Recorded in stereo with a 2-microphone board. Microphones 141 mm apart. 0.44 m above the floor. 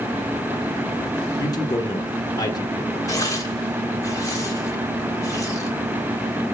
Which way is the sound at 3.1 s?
25° left (ahead or behind).